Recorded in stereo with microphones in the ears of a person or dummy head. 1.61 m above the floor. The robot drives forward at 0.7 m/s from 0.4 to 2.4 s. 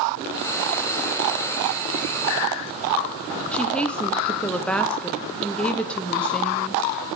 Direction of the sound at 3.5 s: 15° left (ahead or behind).